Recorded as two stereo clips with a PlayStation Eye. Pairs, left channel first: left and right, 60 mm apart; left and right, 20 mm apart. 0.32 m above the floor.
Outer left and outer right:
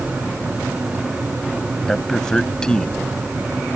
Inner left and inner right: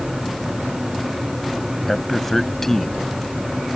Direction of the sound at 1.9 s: 10° left (ahead or behind).